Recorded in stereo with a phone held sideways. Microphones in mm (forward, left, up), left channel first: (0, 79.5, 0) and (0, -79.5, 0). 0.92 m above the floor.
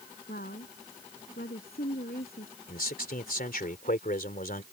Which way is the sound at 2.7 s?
65° left (ahead or behind).